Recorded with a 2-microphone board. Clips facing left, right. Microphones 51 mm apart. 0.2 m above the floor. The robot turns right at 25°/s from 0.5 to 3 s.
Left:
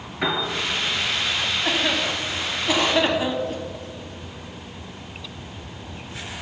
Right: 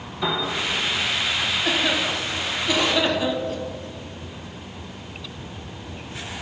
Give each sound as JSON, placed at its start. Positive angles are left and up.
{"t": 0.2, "sound": "a piano", "side_deg": 60, "distance_m": 2.5}
{"t": 1.6, "sound": "a cough", "side_deg": 15, "distance_m": 1.3}